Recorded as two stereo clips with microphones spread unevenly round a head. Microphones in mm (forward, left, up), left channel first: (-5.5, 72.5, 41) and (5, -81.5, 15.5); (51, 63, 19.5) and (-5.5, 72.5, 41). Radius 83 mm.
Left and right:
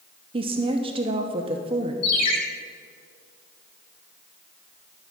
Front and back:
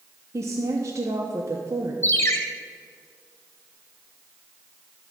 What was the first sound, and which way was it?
A woman speaking, 130° right.